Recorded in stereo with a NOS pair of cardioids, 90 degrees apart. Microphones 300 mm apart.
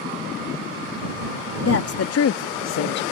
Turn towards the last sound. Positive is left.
turn(degrees=65)